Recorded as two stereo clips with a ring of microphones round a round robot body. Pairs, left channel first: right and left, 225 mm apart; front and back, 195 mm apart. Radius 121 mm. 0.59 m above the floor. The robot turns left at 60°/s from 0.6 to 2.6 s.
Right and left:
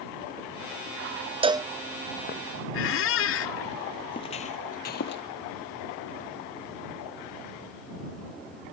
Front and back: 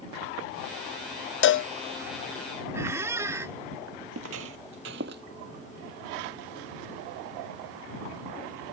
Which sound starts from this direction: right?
A squeak, at 2.7 s.